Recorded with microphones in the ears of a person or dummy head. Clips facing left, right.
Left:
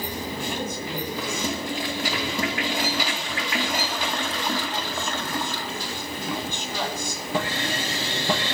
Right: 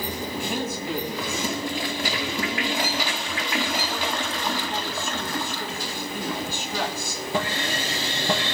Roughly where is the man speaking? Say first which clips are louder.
Right 3 dB; centre.